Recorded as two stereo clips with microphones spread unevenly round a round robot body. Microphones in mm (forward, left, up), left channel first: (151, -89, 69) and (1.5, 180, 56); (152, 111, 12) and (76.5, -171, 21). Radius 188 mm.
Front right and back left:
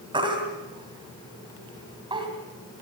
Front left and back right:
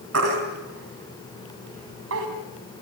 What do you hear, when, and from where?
0.1 s a baby crying: 160° right, 2.5 m